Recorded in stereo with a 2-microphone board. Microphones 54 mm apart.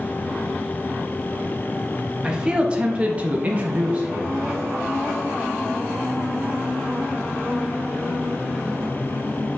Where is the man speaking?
15° right (ahead or behind), 1.1 m; by 4.5 s 20° right (ahead or behind), 1.0 m.